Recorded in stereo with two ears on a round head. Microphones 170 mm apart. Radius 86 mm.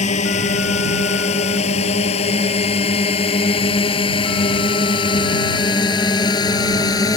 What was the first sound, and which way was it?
A drone, 35° left (ahead or behind).